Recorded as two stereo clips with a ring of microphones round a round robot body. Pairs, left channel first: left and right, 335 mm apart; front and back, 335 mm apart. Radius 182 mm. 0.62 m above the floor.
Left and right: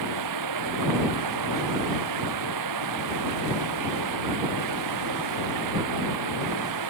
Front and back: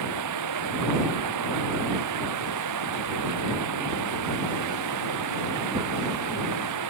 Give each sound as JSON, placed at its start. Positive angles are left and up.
{"t": 0.0, "sound": "running water", "azimuth_deg": -135}